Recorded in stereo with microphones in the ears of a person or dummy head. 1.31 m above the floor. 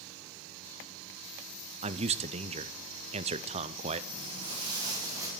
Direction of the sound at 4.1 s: 35° right (ahead or behind).